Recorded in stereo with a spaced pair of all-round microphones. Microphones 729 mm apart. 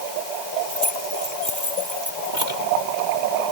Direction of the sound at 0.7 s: 70° right (ahead or behind).